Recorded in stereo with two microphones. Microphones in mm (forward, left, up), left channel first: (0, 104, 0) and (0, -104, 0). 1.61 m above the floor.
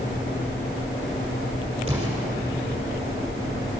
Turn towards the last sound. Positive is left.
turn(degrees=-25)  # may be behind; listen again after turning